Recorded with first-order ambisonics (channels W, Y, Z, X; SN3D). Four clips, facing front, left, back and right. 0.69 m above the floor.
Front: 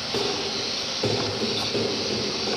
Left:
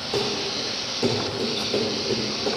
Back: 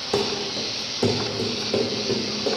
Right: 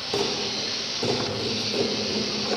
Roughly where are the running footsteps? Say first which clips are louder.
Left 1 dB, back 2 dB; behind.